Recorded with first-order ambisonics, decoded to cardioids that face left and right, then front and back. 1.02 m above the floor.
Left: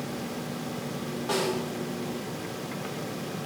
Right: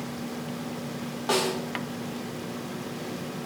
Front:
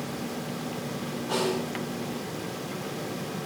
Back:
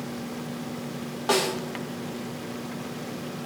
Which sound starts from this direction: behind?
A snare drum, at 1.3 s.